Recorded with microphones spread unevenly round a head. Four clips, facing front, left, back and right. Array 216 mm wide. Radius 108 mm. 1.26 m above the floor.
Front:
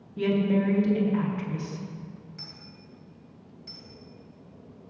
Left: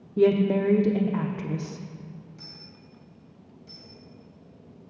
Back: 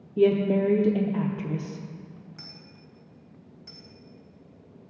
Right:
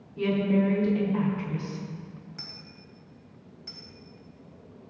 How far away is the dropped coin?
About 3 m.